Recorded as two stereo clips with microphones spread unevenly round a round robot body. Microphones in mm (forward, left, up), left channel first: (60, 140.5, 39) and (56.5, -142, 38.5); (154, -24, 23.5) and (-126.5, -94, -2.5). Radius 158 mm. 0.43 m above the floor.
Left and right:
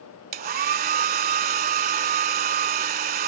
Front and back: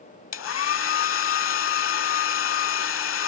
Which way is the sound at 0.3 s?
30° right.